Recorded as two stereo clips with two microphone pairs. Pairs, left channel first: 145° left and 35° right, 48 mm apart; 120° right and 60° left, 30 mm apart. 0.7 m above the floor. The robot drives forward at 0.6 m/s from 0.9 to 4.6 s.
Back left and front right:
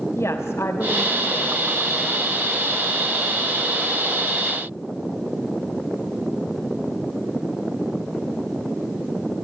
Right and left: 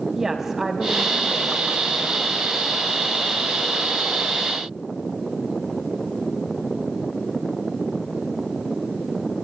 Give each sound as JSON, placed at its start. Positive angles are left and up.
{"t": 0.1, "sound": "a woman speaking", "azimuth_deg": 135, "distance_m": 3.0}